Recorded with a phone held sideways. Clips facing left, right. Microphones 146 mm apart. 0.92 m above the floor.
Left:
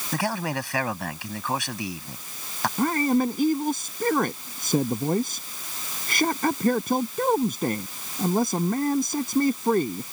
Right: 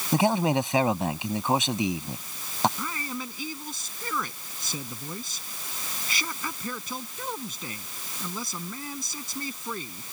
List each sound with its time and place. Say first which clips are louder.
0.1 s a man speaking: right 5 dB; 20° right (ahead or behind)
2.8 s a man speaking: left 13 dB; 55° left (ahead or behind)